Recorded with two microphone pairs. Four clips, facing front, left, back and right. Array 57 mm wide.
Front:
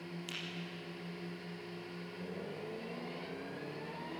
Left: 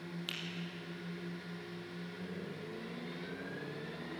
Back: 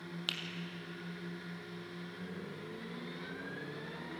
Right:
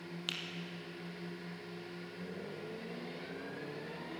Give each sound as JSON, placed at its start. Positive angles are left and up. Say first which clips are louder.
{"t": 0.3, "sound": "a finger snap", "louder": "right 3 dB, back 6 dB", "azimuth_deg": -165, "distance_m": 3.0}